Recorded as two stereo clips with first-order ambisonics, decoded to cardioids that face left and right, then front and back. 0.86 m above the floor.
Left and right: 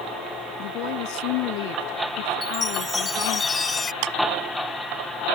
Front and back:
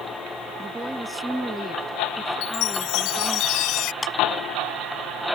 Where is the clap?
80° right.